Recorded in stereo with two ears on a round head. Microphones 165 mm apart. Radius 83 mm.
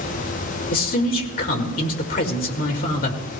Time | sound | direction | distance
0.7 | a man speaking | 50° left (ahead or behind) | 2 m